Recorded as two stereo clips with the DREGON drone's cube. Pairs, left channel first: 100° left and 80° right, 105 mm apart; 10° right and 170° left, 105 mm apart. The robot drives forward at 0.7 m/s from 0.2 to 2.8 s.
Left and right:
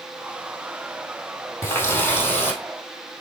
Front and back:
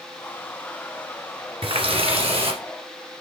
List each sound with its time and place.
1.6 s a running tap: 165° left, 1.5 m; by 2.6 s 170° left, 2 m